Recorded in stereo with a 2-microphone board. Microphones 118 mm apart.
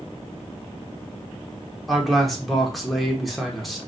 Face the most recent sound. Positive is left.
turn(degrees=0)  # may be behind; listen again after turning